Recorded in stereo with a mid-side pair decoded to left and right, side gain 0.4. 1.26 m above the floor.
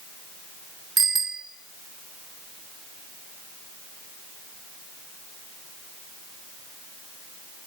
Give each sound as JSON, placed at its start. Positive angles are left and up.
{"t": 1.0, "sound": "a bicycle bell", "azimuth_deg": -40, "distance_m": 2.5}